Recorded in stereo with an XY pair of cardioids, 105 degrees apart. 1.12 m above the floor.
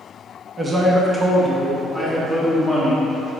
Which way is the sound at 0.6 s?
35° right.